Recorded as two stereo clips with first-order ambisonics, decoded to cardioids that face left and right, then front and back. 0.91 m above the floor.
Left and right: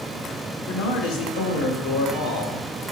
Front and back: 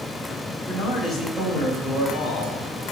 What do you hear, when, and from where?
0.7 s a man speaking: 75° left, 2.0 m